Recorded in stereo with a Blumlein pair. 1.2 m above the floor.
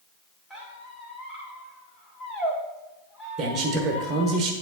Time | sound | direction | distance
0.5 | a squeak | 10° left | 1.9 m
3.4 | a man speaking | 25° right | 1.2 m